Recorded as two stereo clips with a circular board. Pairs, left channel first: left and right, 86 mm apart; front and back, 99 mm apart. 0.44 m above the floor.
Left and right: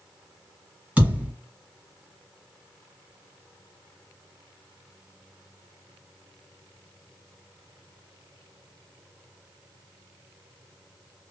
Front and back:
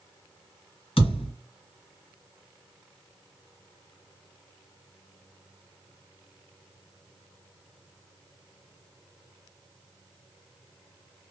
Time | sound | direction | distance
1.0 | a thud | 15° right | 1.8 m